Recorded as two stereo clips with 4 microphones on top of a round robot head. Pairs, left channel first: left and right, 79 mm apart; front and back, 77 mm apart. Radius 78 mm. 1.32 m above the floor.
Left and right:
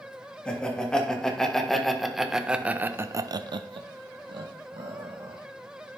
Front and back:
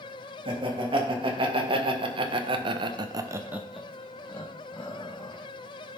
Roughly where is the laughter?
Behind.